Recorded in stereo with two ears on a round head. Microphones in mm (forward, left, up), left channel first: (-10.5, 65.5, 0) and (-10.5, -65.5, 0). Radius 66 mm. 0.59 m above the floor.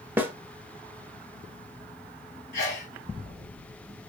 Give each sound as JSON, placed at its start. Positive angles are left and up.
{"t": 0.2, "sound": "a snare drum", "side_deg": -15, "distance_m": 0.6}
{"t": 2.5, "sound": "a sneeze", "side_deg": 55, "distance_m": 3.0}